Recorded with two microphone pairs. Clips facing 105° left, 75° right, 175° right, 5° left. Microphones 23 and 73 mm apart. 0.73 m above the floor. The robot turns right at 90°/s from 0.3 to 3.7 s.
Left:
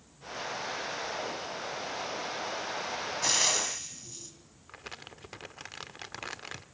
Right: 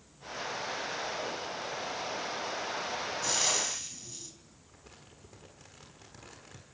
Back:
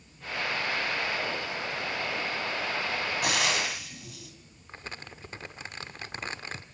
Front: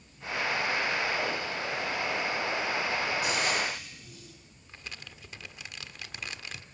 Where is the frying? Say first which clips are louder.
Left 3 dB, back 1 dB; 150° left, 3.5 m; by 4.3 s 165° right, 3.5 m.